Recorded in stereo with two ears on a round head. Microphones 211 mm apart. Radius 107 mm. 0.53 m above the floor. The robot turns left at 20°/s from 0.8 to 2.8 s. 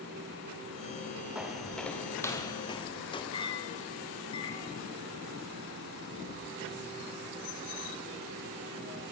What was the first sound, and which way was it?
Footsteps, 5° right (ahead or behind).